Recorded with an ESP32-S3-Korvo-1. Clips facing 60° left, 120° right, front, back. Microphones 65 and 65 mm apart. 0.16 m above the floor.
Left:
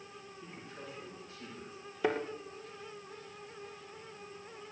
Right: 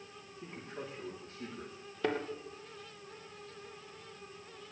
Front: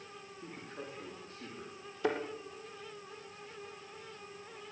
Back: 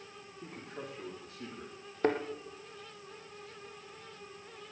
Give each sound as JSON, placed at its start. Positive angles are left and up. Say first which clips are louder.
{"t": 0.4, "sound": "a man speaking", "louder": "right 5 dB, back 2 dB", "azimuth_deg": -165, "distance_m": 9.5}
{"t": 2.0, "sound": "a thud", "louder": "left 2 dB, back 4 dB", "azimuth_deg": 140, "distance_m": 2.5}